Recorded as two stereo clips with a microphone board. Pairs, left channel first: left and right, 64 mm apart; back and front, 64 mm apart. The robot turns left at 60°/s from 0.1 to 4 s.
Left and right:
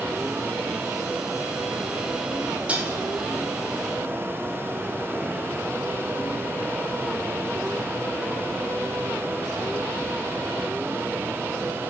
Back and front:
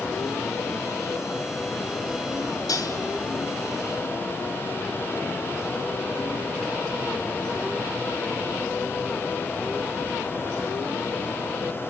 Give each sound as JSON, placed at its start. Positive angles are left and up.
{"t": 2.7, "sound": "dishes clattering", "azimuth_deg": -160, "distance_m": 4.0}